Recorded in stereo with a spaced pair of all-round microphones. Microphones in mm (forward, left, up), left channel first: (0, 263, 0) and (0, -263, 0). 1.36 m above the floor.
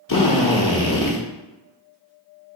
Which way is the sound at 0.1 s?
40° left (ahead or behind).